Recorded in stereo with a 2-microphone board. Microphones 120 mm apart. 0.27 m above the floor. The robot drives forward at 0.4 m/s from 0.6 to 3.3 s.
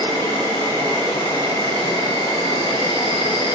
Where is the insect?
20° left (ahead or behind), 1.6 m; by 3.5 s 50° left (ahead or behind), 0.7 m.